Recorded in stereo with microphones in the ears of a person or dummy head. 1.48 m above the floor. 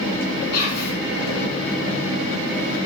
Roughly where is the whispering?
Left.